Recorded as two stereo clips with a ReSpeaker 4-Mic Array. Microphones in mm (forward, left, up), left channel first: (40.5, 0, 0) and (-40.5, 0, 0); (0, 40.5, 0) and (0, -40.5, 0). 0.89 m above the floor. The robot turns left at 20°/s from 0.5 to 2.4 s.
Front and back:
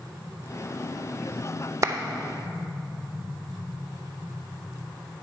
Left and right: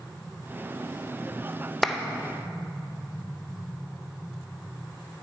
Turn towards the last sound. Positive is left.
turn(degrees=165)